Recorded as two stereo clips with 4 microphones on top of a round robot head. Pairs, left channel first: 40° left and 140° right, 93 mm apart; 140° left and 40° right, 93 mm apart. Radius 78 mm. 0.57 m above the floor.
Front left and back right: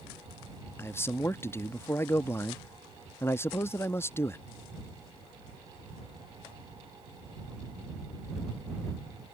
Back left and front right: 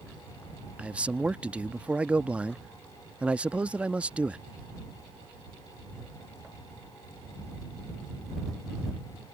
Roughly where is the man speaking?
Ahead left.